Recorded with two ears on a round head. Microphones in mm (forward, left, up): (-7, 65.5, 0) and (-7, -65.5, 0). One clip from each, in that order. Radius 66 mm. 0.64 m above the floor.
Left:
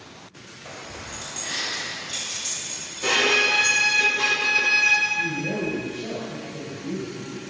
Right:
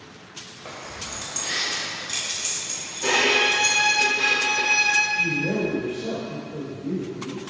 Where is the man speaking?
30° right (ahead or behind), 2 m.